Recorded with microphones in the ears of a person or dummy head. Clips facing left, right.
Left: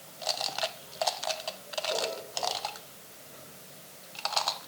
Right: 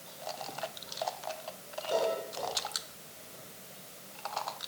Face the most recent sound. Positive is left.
No sound to turn to.